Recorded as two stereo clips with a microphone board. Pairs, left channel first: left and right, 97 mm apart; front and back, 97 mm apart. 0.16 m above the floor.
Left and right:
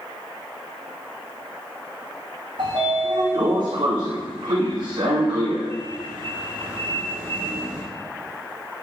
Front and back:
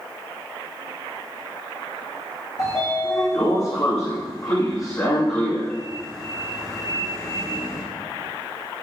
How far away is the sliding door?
About 3.5 m.